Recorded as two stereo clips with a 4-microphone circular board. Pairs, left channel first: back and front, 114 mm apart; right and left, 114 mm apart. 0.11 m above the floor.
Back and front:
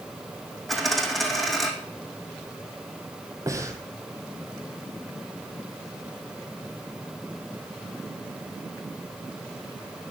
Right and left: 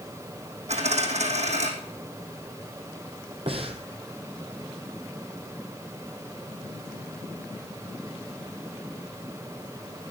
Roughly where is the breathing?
Ahead left.